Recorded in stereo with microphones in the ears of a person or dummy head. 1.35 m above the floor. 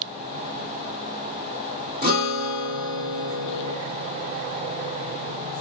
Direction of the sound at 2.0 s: 35° right (ahead or behind).